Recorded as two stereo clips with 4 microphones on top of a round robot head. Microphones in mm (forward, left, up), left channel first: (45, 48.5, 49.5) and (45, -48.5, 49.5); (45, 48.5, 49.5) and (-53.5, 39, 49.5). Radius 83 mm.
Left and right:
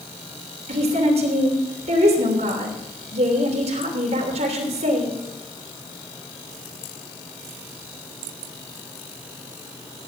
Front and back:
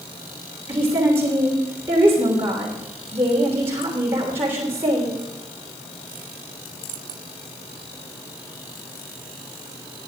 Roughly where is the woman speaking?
Right.